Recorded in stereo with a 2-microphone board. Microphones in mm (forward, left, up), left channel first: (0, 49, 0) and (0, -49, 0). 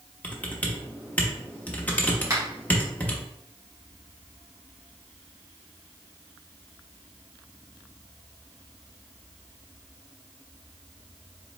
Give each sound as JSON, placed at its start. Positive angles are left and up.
{"t": 0.2, "sound": "typing on a keyboard", "side_deg": 15, "distance_m": 0.9}
{"t": 2.3, "sound": "a finger snap", "side_deg": -35, "distance_m": 2.0}